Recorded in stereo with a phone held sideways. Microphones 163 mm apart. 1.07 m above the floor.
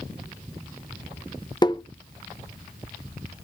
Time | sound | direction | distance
1.6 | tapping | 25° left (ahead or behind) | 0.6 m